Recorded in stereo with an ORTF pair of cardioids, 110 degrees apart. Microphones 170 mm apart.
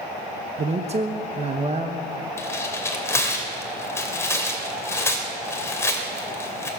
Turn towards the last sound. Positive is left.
turn(degrees=15)